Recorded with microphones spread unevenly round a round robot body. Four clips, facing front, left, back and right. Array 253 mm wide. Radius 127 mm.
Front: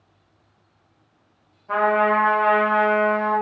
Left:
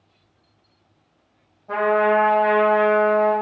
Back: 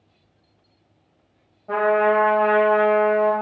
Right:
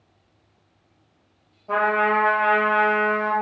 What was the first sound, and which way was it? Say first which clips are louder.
A trumpet: left 2 dB, back 1 dB; 165° right.